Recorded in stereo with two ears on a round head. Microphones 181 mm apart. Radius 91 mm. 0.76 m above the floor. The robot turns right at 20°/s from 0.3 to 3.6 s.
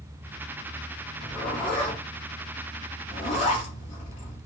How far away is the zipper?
About 1.0 m.